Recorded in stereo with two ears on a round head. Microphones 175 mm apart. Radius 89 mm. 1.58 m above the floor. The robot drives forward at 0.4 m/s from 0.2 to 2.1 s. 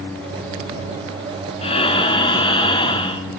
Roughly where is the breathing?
Left.